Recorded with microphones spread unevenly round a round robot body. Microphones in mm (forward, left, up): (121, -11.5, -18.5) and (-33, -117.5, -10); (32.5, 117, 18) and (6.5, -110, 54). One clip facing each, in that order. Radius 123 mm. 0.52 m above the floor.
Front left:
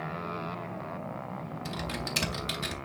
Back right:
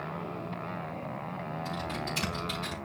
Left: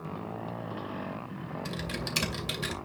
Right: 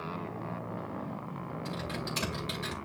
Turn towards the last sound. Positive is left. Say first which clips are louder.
# front left 1 dB, even
turn(degrees=45)